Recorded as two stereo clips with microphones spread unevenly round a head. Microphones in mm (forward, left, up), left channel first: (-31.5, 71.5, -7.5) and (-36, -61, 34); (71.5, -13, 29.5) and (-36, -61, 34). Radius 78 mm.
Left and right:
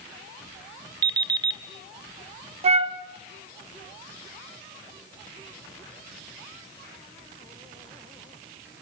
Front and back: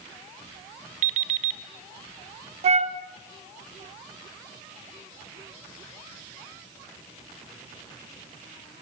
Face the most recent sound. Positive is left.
turn(degrees=-125)